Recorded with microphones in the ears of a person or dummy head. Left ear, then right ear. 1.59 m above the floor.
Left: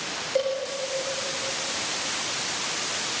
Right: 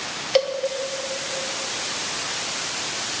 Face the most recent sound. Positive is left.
turn(degrees=-60)  # may be behind; listen again after turning